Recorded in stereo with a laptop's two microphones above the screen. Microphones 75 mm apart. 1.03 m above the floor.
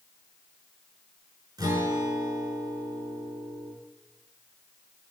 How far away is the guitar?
About 4.5 m.